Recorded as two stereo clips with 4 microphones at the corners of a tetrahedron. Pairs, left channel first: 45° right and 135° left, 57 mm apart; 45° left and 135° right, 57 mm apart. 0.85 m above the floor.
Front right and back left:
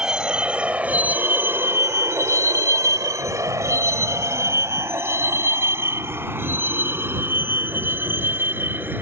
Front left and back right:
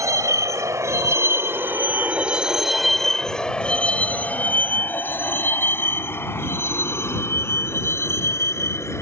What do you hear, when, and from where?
0.0 s a vehicle: 150° right; by 9.0 s 80° left